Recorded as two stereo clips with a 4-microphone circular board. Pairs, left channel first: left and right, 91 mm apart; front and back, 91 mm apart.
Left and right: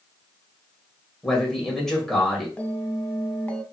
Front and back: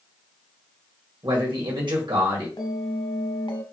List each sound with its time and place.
1.2 s a man speaking: 175° left, 1.8 m
2.6 s a bell: 15° left, 0.7 m